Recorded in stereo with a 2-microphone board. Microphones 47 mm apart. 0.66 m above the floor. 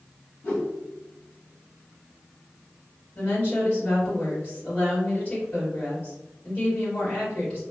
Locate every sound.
0.4 s a whoosh: 40° left (ahead or behind), 1.6 m
3.1 s a woman speaking: 30° left (ahead or behind), 1.9 m